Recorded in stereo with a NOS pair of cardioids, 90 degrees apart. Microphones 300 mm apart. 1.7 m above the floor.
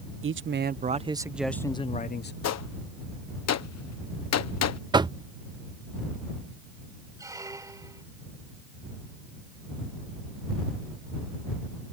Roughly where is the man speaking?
Ahead right.